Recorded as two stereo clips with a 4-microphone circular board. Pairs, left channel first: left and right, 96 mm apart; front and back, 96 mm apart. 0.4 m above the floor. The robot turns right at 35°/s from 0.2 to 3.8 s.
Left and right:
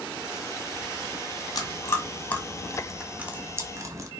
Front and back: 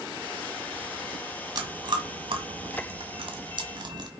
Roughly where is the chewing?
Behind left.